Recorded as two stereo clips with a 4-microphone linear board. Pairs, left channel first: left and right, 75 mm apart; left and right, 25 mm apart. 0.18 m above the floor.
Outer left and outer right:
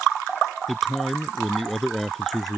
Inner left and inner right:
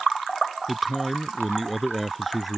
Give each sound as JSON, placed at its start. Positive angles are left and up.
{"t": 0.7, "sound": "a man speaking", "side_deg": 0}